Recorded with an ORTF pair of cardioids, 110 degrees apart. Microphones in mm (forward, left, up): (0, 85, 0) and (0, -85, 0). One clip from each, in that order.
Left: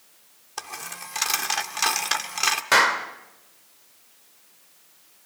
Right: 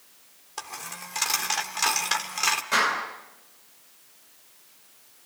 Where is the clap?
70° left, 2.5 m.